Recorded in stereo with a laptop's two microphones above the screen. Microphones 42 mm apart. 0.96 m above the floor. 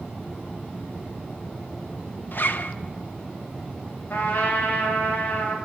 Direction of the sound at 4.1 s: 65° left (ahead or behind).